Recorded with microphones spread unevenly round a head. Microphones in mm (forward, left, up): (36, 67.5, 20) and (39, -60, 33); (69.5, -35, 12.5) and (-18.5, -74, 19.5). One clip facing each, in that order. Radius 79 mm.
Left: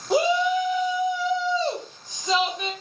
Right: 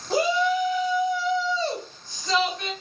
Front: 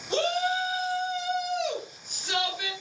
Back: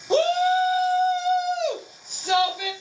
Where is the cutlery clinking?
No cutlery clinking in this recording.